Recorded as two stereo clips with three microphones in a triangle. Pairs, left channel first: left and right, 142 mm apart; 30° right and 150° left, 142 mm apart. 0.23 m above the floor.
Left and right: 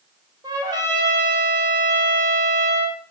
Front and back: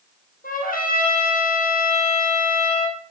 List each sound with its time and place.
0.4 s a trumpet: 30° right, 2.5 m